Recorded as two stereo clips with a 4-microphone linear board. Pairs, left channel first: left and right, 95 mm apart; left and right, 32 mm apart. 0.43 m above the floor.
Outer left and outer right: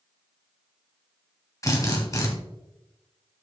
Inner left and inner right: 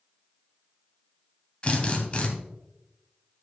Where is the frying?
No frying in this recording.